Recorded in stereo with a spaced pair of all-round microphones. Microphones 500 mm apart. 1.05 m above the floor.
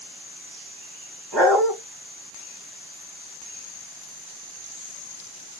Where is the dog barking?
55° right (ahead or behind), 1.9 m.